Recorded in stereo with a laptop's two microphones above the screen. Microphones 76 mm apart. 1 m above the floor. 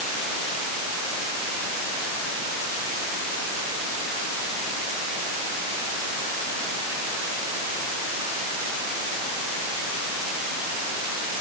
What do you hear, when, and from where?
Only background noise.